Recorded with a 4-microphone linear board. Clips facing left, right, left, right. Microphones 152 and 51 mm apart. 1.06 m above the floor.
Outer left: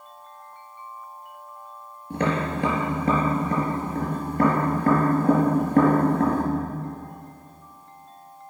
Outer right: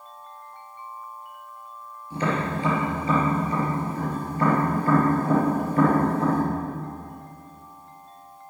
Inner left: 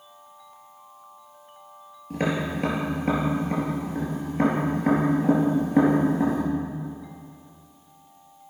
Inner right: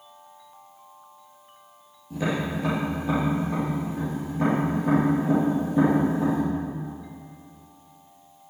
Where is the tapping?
60° left (ahead or behind), 4 m.